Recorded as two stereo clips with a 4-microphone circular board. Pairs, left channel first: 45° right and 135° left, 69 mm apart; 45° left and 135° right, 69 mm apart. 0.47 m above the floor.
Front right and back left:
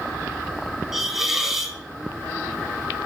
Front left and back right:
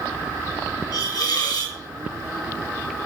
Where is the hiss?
50° left, 1.8 m.